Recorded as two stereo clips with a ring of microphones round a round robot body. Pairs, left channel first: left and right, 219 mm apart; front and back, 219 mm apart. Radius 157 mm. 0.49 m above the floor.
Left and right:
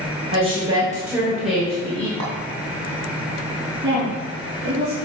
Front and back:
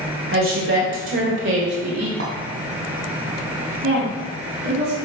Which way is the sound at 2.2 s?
135° right.